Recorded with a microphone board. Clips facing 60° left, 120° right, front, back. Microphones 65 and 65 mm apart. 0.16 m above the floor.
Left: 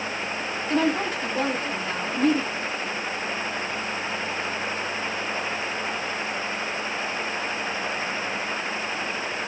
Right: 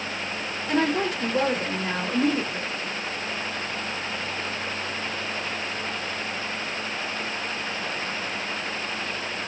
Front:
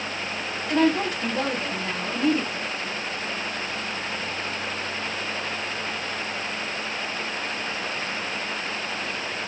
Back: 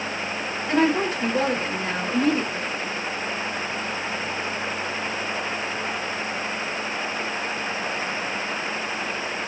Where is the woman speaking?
130° right, 4 m.